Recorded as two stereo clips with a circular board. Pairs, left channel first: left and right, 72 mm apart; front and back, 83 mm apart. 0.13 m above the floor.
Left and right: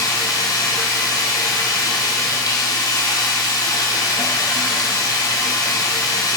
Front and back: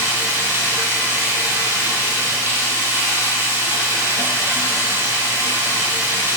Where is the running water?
120° left, 3.5 m.